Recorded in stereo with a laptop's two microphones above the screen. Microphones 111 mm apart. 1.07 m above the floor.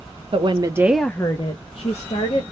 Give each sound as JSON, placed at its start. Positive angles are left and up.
{"t": 0.3, "sound": "a woman speaking", "side_deg": -50, "distance_m": 0.8}